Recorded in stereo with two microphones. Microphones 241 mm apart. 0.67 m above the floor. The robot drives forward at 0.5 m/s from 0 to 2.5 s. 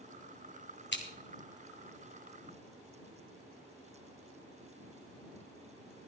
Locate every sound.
0.9 s scissors: 50° left (ahead or behind), 1.8 m; by 1.0 s 45° left (ahead or behind), 1.9 m